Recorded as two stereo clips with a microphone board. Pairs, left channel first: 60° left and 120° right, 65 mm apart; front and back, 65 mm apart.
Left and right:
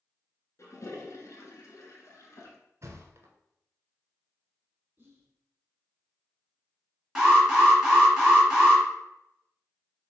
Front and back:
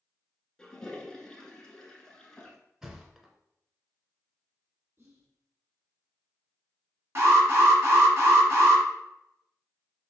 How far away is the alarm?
About 2.5 m.